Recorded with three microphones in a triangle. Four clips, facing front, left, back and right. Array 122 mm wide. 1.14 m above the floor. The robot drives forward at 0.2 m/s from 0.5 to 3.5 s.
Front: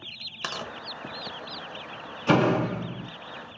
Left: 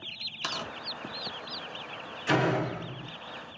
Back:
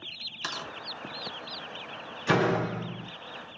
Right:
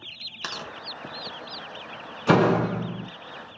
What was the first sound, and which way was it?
Tearing paper, 20° right.